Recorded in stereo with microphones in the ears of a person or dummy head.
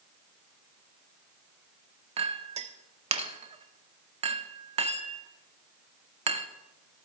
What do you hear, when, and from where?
2.2 s a clink: 30° right (ahead or behind), 0.5 m